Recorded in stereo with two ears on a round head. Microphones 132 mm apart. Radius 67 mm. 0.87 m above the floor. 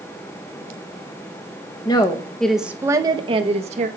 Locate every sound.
1.9 s a woman speaking: 30° left (ahead or behind), 0.9 m; by 3.9 s 50° right (ahead or behind), 1.3 m